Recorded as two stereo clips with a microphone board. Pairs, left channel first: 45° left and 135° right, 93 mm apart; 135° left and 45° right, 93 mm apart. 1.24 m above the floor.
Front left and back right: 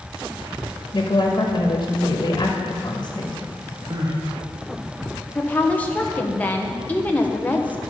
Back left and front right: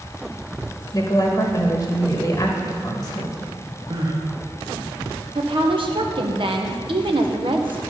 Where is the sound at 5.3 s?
30° right, 0.9 m.